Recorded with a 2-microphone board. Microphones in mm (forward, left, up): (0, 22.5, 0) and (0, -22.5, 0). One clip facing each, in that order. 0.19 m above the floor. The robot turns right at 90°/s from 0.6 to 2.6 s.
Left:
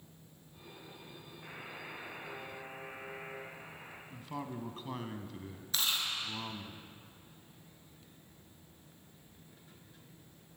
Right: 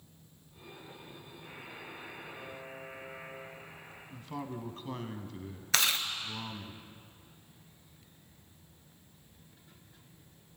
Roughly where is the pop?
No pop in this recording.